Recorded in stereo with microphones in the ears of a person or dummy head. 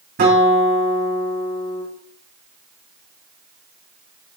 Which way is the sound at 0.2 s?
45° right (ahead or behind).